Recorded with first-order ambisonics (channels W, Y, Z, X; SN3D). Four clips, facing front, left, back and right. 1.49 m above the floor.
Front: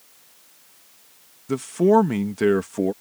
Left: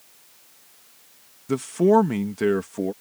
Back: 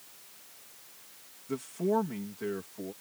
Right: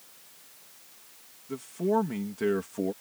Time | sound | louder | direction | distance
1.5 | a man speaking | left 10 dB, front 12 dB | 55° left | ?